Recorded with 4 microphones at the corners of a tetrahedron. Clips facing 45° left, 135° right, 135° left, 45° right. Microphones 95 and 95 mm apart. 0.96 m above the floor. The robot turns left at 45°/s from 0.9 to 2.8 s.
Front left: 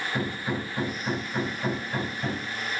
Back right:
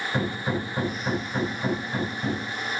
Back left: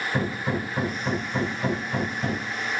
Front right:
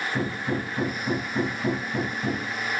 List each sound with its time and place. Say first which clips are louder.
0.1 s hammering: back right 3 dB, back left 1 dB; 175° left, 6 m; by 2.5 s 105° left, 6 m